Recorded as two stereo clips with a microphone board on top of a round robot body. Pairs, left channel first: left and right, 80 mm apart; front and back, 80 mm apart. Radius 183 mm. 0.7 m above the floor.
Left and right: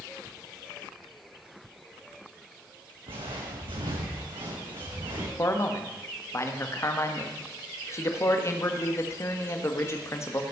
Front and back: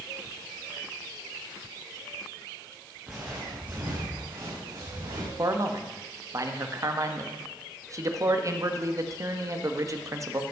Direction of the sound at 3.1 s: 100° right.